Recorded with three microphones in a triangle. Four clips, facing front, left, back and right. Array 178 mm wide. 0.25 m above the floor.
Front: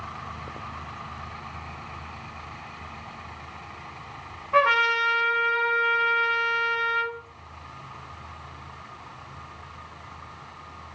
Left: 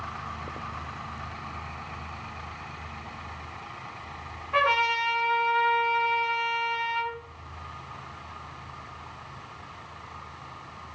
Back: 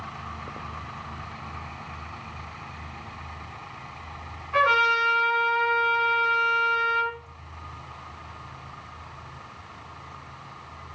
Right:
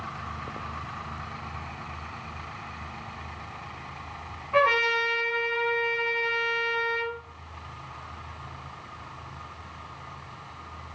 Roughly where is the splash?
No splash in this recording.